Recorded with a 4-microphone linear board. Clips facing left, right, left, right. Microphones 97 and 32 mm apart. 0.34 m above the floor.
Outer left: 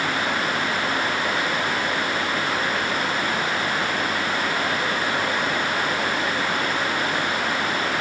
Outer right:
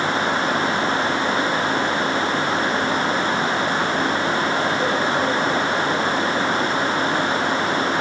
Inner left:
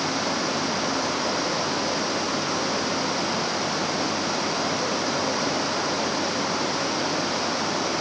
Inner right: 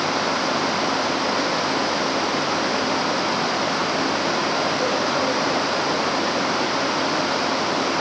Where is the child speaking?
I don't hear a child speaking.